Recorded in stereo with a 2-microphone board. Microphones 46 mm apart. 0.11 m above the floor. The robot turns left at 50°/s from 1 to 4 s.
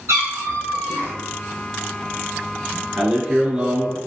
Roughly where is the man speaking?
Ahead right.